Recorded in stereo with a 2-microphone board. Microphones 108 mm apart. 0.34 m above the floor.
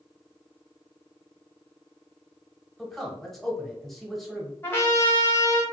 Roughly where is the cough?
I don't hear a cough.